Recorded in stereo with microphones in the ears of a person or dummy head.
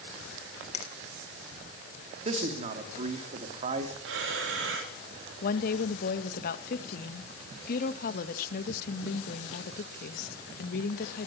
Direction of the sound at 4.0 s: 70° right (ahead or behind).